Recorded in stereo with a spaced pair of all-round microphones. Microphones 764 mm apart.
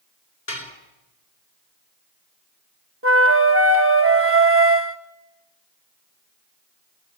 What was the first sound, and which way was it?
Dishes clattering, 90° left.